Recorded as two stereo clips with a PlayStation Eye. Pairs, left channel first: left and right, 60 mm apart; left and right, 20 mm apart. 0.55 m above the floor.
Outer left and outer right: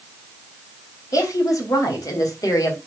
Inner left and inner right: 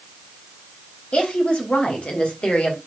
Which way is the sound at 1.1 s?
75° left (ahead or behind).